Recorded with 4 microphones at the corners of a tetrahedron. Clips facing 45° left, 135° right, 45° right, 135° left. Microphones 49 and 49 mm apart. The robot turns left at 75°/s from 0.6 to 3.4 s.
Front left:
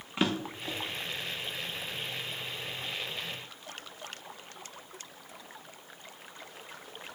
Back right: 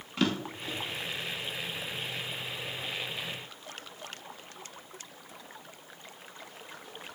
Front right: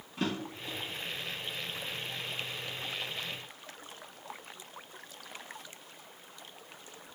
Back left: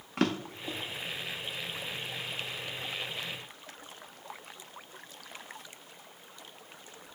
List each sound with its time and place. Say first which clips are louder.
0.2 s a drawer: back right 1 dB, back left 4 dB; 115° left, 0.6 m; by 0.8 s 100° left, 0.6 m